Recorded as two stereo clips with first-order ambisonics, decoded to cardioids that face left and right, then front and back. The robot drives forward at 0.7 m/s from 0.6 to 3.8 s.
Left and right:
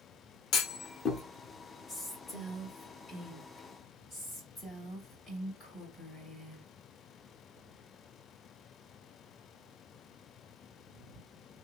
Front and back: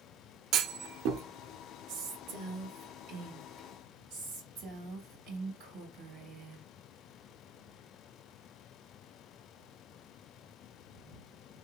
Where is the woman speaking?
155° left, 1.8 m; by 6.7 s 165° left, 3 m.